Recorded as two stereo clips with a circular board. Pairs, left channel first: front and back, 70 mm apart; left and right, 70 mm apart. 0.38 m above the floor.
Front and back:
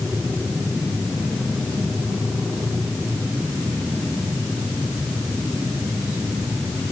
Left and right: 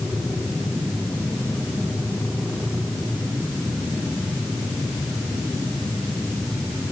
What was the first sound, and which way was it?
Only background noise.